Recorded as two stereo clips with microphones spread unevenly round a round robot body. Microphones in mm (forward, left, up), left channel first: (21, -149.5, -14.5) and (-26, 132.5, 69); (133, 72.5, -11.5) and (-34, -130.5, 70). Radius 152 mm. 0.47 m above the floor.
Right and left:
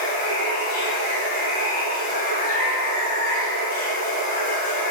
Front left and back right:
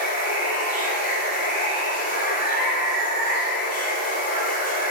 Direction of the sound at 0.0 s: 15° right.